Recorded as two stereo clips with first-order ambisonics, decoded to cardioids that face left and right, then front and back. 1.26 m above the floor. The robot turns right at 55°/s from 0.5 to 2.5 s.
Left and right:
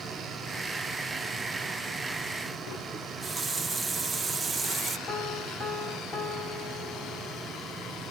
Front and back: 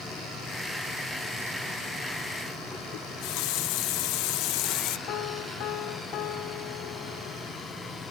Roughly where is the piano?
Ahead left.